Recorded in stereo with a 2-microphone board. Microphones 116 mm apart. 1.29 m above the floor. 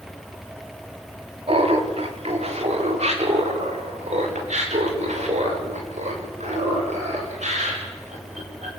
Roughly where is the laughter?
Right.